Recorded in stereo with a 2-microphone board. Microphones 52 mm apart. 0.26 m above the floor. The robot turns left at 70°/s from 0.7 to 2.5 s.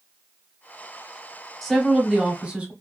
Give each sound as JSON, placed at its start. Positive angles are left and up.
{"t": 1.6, "sound": "a woman speaking", "side_deg": 5, "distance_m": 1.0}